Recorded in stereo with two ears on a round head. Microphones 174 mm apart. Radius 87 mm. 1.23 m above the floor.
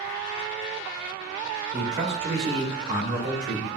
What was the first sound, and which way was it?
A man speaking, 65° right (ahead or behind).